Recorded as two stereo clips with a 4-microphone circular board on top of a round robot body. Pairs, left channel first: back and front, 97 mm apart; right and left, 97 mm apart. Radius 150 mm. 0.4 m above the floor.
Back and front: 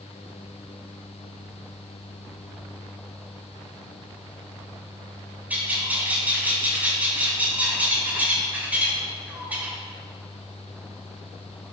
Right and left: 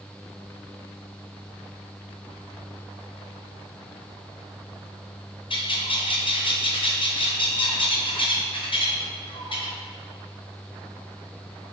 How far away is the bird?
About 2.5 m.